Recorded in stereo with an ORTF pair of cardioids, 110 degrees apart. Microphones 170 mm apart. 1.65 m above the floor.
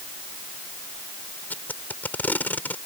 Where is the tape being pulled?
10° left.